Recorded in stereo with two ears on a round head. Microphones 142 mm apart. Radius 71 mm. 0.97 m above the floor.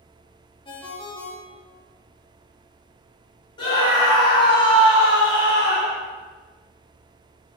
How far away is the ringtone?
About 0.6 m.